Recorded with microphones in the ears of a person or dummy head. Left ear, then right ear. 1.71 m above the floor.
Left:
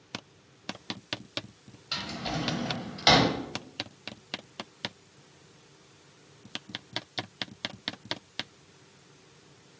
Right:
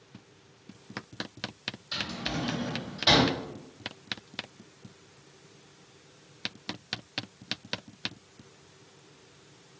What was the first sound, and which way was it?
A drawer, 50° left (ahead or behind).